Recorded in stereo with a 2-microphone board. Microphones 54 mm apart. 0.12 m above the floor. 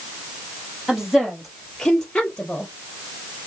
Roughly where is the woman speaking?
Centre.